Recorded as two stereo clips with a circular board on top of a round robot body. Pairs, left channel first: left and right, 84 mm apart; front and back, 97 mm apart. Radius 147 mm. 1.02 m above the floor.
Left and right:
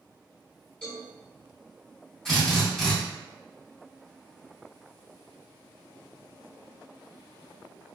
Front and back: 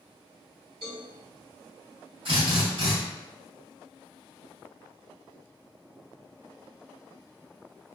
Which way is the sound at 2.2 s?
170° left.